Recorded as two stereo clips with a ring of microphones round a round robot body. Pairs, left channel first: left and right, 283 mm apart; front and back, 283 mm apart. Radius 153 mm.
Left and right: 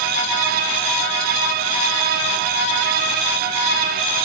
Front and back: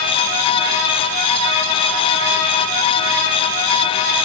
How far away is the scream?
I don't hear a scream.